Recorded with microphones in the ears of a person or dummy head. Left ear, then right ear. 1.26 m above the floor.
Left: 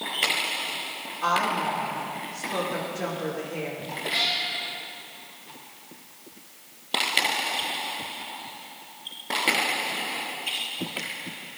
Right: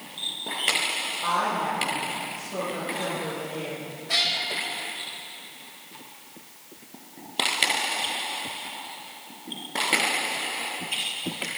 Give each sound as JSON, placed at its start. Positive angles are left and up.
{"t": 1.2, "sound": "a woman speaking", "side_deg": 45, "distance_m": 2.5}
{"t": 4.1, "sound": "a cat meowing", "side_deg": -65, "distance_m": 1.3}